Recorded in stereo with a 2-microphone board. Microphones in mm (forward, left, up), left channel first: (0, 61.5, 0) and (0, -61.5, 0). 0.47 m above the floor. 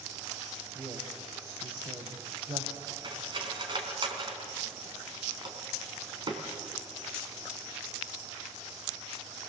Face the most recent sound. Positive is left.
turn(degrees=-40)  # may be behind; listen again after turning